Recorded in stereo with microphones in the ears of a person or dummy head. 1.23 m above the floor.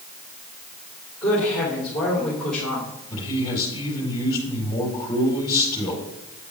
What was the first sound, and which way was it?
A woman speaking, 5° right (ahead or behind).